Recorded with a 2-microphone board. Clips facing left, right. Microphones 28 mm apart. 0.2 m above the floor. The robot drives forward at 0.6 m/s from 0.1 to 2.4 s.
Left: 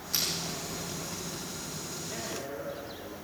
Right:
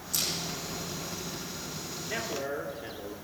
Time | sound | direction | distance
0.1 | crushing | 40° left (ahead or behind) | 9.5 m
2.1 | a man speaking | 65° right (ahead or behind) | 3.5 m